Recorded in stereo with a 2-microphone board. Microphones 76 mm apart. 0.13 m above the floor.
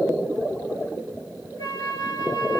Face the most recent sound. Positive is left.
turn(degrees=60)  # may be behind; listen again after turning